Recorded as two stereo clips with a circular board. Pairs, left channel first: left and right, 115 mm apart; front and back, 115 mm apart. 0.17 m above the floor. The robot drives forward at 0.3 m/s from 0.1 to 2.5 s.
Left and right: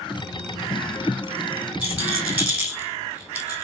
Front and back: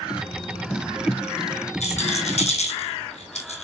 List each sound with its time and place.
1.8 s a rattle: 10° right, 1.5 m; by 3.6 s 15° right, 1.3 m